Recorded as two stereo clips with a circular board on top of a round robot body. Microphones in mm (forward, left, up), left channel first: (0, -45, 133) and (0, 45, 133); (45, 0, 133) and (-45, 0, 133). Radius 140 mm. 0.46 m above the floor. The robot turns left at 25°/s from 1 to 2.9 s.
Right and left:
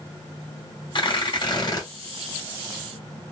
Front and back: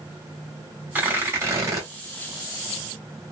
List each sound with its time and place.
0.9 s tearing paper: 110° right, 1.8 m; by 1.9 s 130° right, 1.8 m